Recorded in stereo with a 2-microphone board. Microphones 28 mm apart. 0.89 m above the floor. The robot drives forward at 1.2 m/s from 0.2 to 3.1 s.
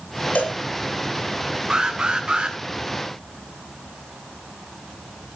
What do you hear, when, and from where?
0.3 s a cowbell: 80° left, 4.5 m
1.7 s an alarm: 30° right (ahead or behind), 3 m; by 2.6 s 45° right (ahead or behind), 2.0 m